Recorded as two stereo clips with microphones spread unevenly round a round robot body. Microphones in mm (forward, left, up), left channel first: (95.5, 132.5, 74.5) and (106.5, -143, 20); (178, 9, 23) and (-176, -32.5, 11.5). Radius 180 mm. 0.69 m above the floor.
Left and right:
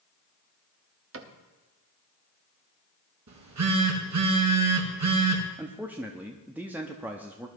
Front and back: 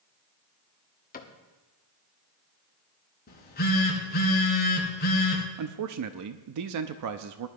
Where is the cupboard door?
60° right, 1.2 m.